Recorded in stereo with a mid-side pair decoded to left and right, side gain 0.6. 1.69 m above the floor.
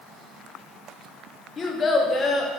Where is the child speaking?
30° left, 1.4 m.